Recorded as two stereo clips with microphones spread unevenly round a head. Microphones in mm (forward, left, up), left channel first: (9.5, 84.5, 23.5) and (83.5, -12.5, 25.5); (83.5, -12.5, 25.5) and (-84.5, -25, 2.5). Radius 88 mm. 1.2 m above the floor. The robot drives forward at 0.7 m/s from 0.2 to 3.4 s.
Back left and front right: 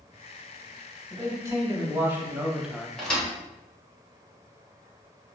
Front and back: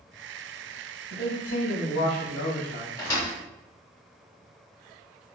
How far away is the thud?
About 1.1 m.